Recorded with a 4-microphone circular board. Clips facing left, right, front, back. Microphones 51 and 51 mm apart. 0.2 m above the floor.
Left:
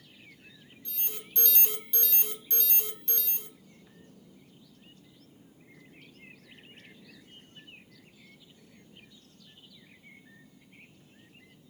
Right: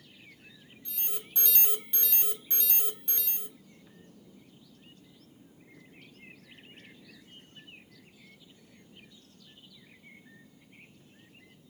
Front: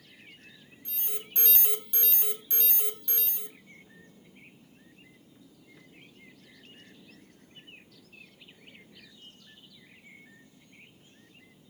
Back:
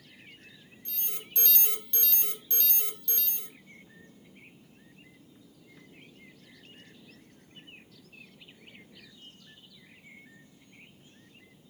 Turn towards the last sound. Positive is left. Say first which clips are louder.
# even, front 2 dB
turn(degrees=-35)